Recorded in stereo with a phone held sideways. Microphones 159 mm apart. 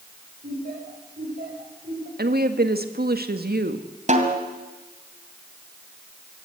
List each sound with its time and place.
0.4 s laughter: 75° right (ahead or behind), 8 m; by 2.1 s 85° right, 7.5 m
2.2 s a woman speaking: 80° right, 1.8 m
4.1 s a snare drum: 50° right (ahead or behind), 2.5 m